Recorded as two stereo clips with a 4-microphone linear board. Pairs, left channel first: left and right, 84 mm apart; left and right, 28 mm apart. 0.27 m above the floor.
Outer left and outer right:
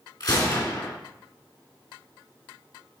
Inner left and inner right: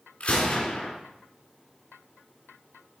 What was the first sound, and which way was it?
A gunshot, 60° left (ahead or behind).